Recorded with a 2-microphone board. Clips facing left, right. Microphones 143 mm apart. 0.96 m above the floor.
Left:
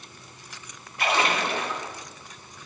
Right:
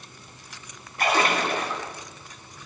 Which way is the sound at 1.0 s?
45° right (ahead or behind).